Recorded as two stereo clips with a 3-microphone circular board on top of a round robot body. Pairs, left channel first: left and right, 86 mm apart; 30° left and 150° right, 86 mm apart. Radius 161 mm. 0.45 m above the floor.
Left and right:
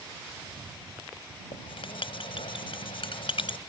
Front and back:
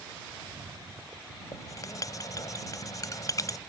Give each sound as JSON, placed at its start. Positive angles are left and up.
{"t": 1.5, "sound": "writing", "azimuth_deg": 80}